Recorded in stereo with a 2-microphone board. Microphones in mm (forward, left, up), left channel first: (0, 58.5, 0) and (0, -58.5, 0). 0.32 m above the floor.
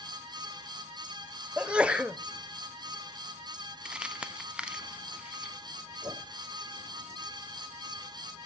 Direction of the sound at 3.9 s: 10° right (ahead or behind).